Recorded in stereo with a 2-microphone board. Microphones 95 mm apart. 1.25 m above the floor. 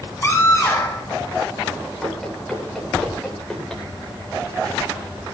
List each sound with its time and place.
0.2 s a scream: 30° left (ahead or behind), 7 m
2.0 s running footsteps: centre (ahead or behind), 10 m; by 3.8 s 5° left (ahead or behind), 10.5 m